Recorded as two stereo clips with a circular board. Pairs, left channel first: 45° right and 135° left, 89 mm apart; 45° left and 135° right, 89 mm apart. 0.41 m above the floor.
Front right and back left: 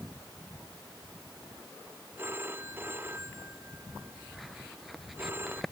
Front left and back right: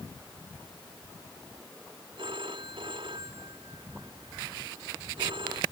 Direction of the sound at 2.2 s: 160° right.